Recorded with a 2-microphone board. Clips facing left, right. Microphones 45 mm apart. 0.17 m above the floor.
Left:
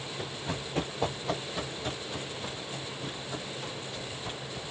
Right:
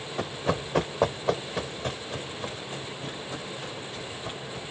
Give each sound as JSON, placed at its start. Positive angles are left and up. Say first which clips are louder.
{"t": 0.2, "sound": "running footsteps", "louder": "right 9 dB", "side_deg": -80, "distance_m": 0.8}